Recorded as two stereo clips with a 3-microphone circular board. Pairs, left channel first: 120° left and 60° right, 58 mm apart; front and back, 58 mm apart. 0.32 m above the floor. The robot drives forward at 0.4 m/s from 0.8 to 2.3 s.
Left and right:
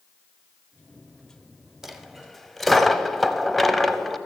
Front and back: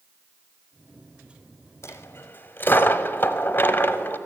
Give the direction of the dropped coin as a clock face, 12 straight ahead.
11 o'clock.